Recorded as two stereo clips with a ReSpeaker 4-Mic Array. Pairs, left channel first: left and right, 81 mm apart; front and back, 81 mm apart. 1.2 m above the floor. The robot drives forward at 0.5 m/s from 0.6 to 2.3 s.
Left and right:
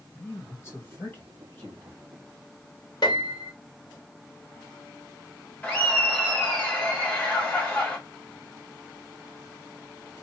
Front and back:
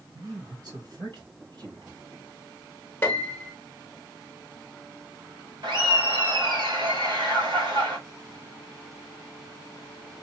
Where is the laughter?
160° left, 1.6 m.